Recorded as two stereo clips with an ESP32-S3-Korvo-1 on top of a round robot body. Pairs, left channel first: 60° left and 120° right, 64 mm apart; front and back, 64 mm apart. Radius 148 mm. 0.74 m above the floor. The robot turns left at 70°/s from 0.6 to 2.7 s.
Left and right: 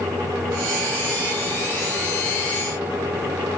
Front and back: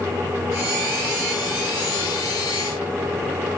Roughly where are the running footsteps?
I don't hear running footsteps.